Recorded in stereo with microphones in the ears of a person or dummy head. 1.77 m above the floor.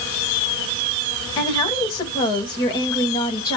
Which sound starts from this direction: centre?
A woman speaking, at 1.4 s.